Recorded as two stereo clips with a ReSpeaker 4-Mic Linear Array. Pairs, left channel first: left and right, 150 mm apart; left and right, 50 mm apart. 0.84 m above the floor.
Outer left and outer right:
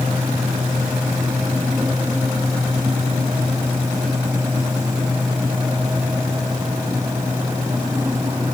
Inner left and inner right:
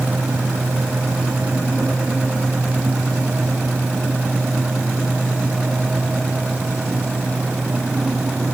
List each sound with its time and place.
Only background noise.